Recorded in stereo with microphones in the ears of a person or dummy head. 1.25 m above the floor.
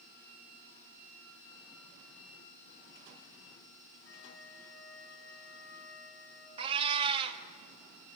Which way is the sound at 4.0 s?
60° left (ahead or behind).